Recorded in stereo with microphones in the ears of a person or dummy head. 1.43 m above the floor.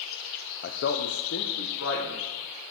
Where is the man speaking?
50° left (ahead or behind), 0.5 m; by 2.3 s 80° left, 1.5 m.